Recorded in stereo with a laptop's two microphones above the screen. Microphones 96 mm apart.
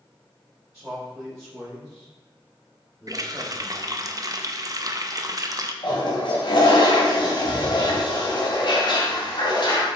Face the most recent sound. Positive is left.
turn(degrees=55)  # may be behind; listen again after turning